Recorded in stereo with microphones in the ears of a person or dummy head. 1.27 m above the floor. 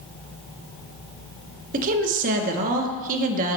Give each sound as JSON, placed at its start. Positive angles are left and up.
{"t": 1.7, "sound": "a woman speaking", "side_deg": -45, "distance_m": 1.0}